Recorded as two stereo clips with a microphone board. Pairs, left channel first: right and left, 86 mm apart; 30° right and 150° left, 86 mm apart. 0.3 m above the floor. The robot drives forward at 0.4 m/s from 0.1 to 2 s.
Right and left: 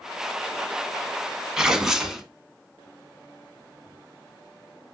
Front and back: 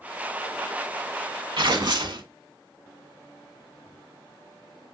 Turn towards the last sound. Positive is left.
turn(degrees=175)